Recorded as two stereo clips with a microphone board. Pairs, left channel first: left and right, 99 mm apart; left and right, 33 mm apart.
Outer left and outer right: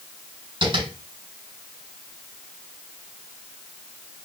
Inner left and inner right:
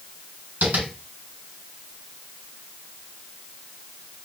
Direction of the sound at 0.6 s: 55° right (ahead or behind).